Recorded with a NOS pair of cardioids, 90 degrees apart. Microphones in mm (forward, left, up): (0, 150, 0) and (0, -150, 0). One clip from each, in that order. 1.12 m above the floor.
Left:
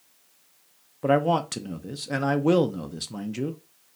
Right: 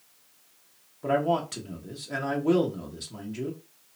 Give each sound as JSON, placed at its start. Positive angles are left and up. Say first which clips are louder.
{"t": 1.0, "sound": "a man speaking", "louder": "left 3 dB", "azimuth_deg": 35, "distance_m": 0.7}